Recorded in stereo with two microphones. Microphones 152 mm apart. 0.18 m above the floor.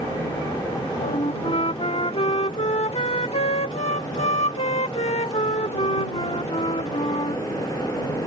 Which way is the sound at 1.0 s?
45° left (ahead or behind).